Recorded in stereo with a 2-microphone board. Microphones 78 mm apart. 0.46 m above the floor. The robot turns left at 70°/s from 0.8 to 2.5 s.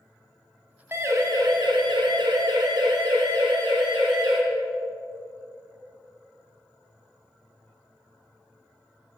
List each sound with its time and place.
0.9 s a siren: 30° right (ahead or behind), 3 m; by 4.4 s 80° right, 4 m